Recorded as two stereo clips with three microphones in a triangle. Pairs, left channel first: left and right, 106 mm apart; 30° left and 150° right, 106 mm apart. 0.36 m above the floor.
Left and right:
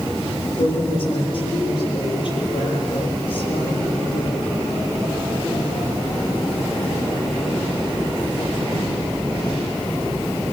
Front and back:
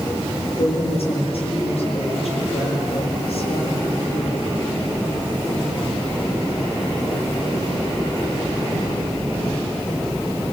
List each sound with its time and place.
0.6 s a woman speaking: 60° left, 9 m